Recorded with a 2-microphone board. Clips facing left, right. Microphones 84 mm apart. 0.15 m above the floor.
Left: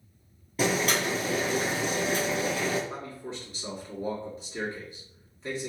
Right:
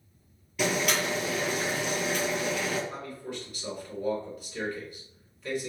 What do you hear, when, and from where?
0.6 s boiling: 40° left (ahead or behind), 1.5 m
2.9 s a man speaking: 30° left (ahead or behind), 1.9 m